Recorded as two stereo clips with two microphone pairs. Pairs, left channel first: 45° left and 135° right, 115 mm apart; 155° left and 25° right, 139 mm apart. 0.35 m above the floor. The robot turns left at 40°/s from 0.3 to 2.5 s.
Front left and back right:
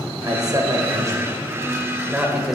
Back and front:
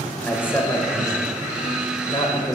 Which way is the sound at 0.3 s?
135° right.